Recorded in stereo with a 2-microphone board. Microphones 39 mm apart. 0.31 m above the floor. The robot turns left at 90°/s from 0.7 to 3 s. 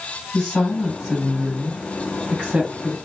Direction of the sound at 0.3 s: 10° left.